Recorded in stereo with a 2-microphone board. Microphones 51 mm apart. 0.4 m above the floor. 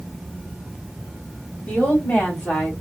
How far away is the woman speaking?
About 2 m.